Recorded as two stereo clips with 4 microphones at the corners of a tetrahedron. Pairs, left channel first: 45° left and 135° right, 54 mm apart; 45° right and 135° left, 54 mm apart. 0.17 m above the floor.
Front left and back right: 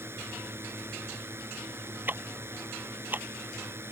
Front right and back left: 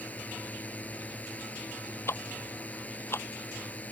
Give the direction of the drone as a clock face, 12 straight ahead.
3 o'clock.